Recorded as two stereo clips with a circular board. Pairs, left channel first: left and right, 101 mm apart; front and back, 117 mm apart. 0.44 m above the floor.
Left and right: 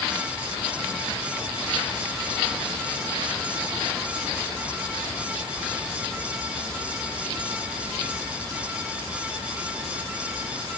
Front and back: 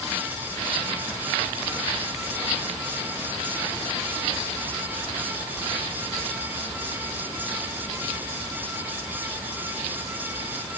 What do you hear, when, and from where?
Only background noise.